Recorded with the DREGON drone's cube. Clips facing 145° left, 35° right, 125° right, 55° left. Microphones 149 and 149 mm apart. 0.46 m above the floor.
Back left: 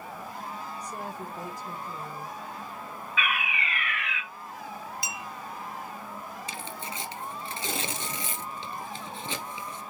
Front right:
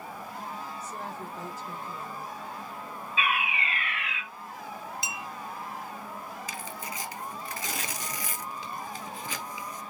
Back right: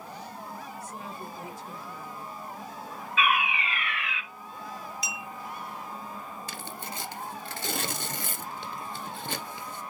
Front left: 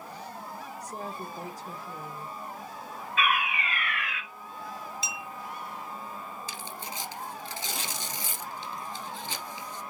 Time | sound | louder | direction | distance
0.8 | a woman speaking | back left 1 dB, front left 2 dB | 75° left | 1.5 m
3.2 | a fire alarm | front right 2 dB, back right 2 dB | 15° left | 5 m
5.0 | a clink | even, even | 15° left | 0.5 m
6.5 | tearing paper | even, back right 1 dB | 155° right | 1.1 m